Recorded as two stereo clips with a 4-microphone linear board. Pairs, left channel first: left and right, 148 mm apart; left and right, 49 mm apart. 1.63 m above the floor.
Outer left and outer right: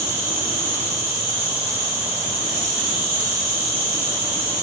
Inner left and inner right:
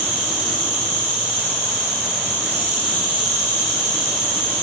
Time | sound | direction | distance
0.0 | an insect | 25° right (ahead or behind) | 1.8 m